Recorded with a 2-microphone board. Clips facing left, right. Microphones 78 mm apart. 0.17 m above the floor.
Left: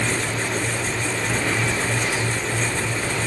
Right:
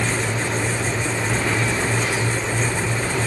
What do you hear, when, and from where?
Only background noise.